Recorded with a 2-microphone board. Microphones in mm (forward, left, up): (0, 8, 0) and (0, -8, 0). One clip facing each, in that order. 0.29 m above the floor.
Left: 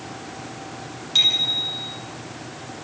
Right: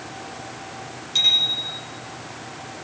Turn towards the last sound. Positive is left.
turn(degrees=15)  # may be behind; listen again after turning